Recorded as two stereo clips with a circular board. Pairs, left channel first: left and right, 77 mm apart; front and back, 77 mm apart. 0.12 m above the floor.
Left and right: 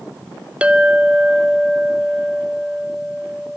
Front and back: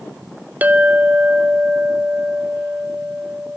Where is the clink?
140° right, 0.7 m.